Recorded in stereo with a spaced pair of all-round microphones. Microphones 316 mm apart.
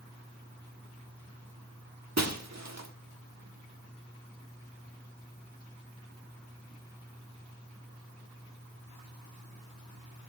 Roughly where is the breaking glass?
Right.